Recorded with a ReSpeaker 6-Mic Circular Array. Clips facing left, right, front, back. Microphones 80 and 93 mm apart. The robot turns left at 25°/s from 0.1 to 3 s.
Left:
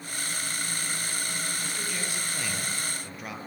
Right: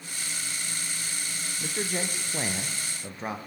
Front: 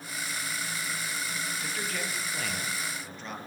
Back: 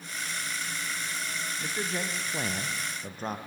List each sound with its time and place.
1.6 s a man speaking: 110° right, 3 m; by 3.4 s 145° right, 3 m